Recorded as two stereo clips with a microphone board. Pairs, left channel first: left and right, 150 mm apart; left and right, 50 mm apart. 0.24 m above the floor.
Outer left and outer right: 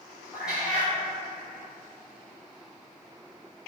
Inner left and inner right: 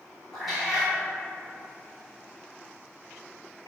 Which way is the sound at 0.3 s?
5° right (ahead or behind).